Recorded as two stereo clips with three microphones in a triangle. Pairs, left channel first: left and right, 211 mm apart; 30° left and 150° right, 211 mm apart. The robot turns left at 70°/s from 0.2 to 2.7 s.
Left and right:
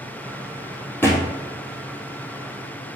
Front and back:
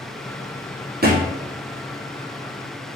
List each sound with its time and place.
1.0 s a thud: 170° left, 2 m; by 1.3 s 155° left, 2 m